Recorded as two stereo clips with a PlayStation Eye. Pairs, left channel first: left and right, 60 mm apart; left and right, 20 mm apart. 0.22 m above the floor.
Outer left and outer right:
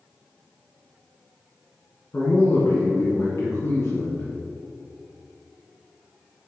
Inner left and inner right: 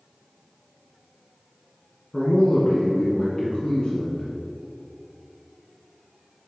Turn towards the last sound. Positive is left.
turn(degrees=45)  # may be behind; listen again after turning